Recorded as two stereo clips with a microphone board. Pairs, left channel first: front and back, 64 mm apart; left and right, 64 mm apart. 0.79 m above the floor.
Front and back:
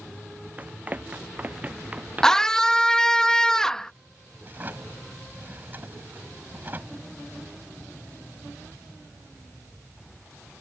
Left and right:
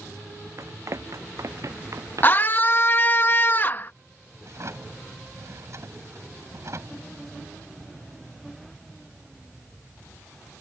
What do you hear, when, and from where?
0.6 s running footsteps: 120° right; by 2.5 s 115° right
2.2 s a scream: 75° left
4.4 s a drawer: 125° right